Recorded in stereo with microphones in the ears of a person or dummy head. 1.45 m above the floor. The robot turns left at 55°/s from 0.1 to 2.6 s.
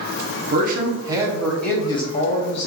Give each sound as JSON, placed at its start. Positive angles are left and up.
{"t": 0.5, "sound": "a man speaking", "azimuth_deg": -125, "distance_m": 0.6}